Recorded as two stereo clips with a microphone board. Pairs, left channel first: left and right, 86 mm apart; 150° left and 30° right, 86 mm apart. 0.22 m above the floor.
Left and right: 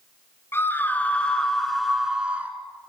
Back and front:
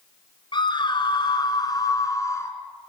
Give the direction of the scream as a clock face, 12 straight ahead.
7 o'clock.